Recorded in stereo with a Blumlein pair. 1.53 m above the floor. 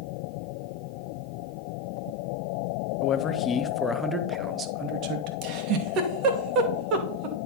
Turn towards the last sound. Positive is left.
turn(degrees=-40)